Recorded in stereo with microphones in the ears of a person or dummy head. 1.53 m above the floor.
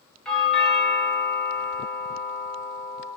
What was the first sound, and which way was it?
A doorbell, 10° left (ahead or behind).